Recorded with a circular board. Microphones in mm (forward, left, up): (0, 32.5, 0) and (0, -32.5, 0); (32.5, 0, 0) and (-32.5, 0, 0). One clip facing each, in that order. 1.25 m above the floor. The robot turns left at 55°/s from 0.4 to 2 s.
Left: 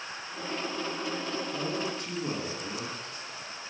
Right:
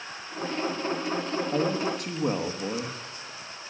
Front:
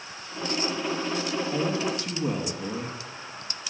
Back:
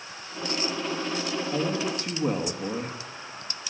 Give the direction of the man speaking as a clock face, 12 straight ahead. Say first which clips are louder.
Right 6 dB, even; 3 o'clock.